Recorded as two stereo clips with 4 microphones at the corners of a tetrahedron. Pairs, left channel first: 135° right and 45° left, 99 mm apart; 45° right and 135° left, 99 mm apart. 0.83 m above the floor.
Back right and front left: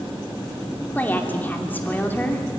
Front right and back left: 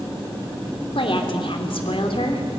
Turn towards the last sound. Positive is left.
turn(degrees=-65)